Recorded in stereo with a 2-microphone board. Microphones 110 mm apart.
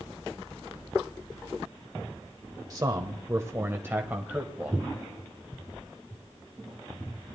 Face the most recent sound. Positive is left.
turn(degrees=-10)  # may be behind; listen again after turning